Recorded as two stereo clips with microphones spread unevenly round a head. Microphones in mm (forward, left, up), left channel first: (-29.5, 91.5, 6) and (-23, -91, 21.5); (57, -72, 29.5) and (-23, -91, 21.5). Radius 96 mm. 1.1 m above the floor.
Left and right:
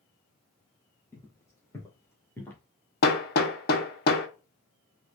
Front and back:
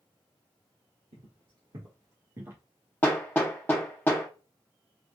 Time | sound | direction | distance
1.1 | footsteps | 165° left | 1.7 m
3.0 | hammering | 80° left | 0.6 m